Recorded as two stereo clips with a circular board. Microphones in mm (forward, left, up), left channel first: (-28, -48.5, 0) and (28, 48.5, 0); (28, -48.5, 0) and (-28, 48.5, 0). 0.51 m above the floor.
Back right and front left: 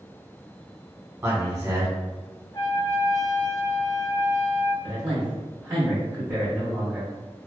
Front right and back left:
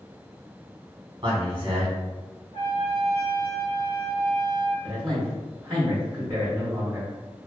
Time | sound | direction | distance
1.2 | a man speaking | 120° left | 1.1 m
2.5 | a trumpet | 65° right | 1.4 m
4.8 | a man speaking | 90° left | 1.2 m